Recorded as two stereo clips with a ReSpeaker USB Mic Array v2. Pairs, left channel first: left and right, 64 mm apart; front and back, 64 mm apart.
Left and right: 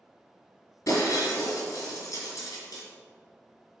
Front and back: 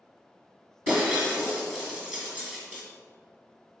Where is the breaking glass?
110° left, 3 m.